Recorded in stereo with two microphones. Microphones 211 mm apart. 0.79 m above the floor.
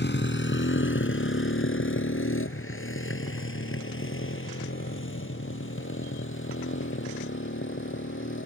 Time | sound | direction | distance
0.0 | a motorcycle | 60° left (ahead or behind) | ?